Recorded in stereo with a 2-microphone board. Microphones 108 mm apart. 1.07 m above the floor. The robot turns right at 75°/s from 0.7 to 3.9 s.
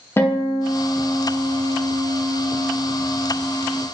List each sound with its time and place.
0.2 s a guitar: 150° left, 0.6 m; by 3.8 s 25° left, 0.6 m